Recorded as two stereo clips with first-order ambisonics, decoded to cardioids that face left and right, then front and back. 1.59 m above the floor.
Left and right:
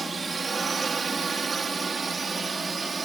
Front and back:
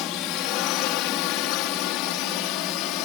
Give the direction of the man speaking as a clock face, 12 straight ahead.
I don't hear a man speaking.